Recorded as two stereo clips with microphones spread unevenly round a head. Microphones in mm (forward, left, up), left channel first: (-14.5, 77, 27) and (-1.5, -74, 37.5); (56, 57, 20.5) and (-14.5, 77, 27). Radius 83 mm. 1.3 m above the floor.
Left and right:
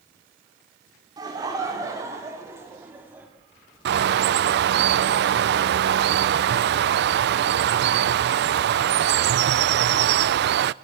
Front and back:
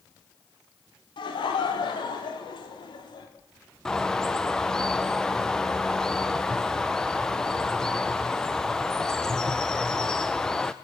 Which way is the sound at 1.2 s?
15° right.